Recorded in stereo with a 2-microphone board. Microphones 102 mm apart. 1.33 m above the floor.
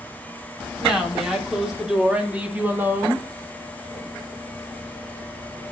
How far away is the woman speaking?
About 4 m.